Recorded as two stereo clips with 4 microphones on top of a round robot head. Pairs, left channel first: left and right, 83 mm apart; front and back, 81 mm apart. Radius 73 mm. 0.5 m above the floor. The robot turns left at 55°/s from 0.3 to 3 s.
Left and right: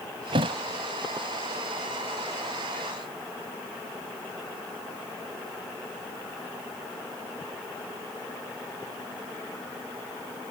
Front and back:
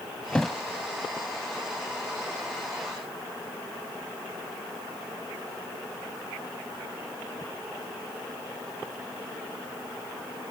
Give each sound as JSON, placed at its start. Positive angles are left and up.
{"t": 0.3, "sound": "a thud", "azimuth_deg": -75}